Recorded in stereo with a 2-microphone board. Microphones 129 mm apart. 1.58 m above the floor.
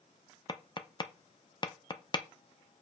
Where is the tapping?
35° left (ahead or behind), 0.7 m.